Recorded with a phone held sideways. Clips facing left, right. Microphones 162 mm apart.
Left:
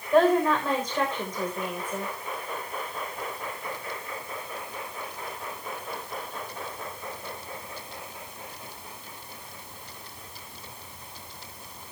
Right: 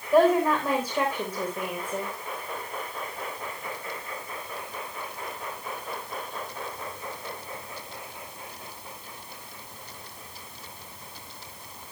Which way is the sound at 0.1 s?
10° right (ahead or behind).